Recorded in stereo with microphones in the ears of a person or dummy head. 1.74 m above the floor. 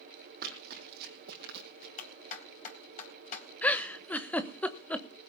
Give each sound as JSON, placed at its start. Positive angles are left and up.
{"t": 0.4, "sound": "running footsteps", "side_deg": -55, "distance_m": 4.5}
{"t": 2.0, "sound": "a clap", "side_deg": 45, "distance_m": 4.5}
{"t": 3.6, "sound": "a giggle", "side_deg": 5, "distance_m": 1.2}